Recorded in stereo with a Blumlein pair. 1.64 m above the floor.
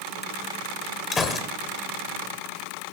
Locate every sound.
1.1 s a gunshot: 20° left, 0.6 m